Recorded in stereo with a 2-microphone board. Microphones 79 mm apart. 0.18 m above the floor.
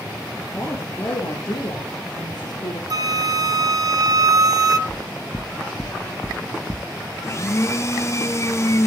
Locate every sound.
0.5 s a woman speaking: 25° left (ahead or behind), 4.5 m; by 2.8 s 65° left (ahead or behind), 5.5 m
2.9 s a flute: 50° right (ahead or behind), 1.0 m
4.9 s knocking: 20° left (ahead or behind), 1.5 m
7.2 s a blender: 40° left (ahead or behind), 1.4 m